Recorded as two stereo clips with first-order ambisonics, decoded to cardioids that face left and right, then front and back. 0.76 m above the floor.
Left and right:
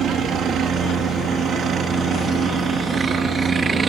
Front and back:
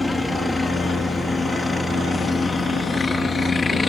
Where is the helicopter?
75° right; by 3.9 s 45° right.